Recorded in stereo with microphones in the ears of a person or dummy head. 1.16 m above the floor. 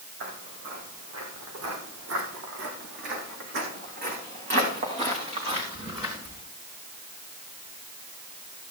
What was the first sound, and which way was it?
Footsteps, 75° right (ahead or behind).